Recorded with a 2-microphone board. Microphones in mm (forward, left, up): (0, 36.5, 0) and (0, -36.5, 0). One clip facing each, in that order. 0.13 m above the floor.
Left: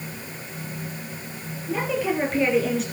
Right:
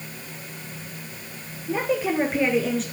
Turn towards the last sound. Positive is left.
turn(degrees=5)  # may be behind; listen again after turning